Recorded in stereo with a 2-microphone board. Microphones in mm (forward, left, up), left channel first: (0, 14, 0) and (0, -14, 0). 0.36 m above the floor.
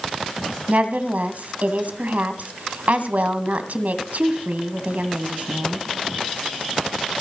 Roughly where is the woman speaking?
Right.